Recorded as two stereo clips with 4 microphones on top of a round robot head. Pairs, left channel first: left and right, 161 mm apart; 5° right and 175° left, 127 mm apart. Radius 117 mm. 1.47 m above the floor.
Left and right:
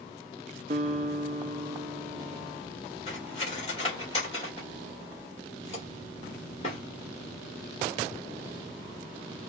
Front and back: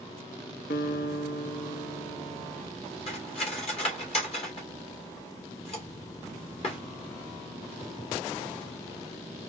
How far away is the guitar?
About 0.5 m.